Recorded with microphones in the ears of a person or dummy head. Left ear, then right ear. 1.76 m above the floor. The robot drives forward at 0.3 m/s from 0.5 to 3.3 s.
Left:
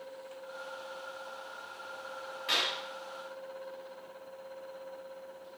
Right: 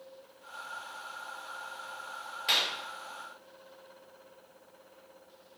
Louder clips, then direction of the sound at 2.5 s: Right 2 dB; 50° right (ahead or behind).